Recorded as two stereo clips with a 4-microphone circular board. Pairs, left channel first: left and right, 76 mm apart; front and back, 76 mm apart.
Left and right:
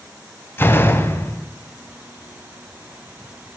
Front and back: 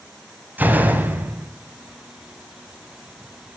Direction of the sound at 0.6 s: 130° left.